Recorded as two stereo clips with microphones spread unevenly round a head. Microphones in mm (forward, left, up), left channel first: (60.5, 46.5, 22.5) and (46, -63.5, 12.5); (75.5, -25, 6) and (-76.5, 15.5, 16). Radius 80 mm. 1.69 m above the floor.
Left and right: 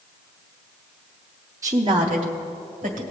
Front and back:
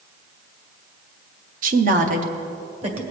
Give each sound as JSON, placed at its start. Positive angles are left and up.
{"t": 1.6, "sound": "a woman speaking", "azimuth_deg": -170, "distance_m": 0.6}